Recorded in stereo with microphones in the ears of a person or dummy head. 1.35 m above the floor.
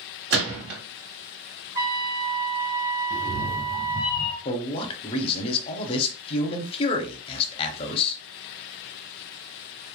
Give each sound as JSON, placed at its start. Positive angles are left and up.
{"t": 0.3, "sound": "a gunshot", "side_deg": -55, "distance_m": 1.8}
{"t": 1.8, "sound": "a trumpet", "side_deg": -20, "distance_m": 0.6}
{"t": 3.1, "sound": "a cat meowing", "side_deg": 25, "distance_m": 0.6}
{"t": 4.5, "sound": "a man speaking", "side_deg": 30, "distance_m": 0.6}